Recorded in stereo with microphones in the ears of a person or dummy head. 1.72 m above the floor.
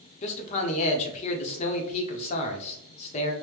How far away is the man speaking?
About 0.8 m.